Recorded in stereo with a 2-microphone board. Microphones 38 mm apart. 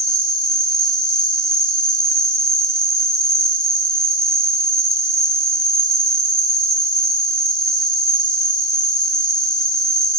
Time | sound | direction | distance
0.0 | an insect | 10° left (ahead or behind) | 0.8 m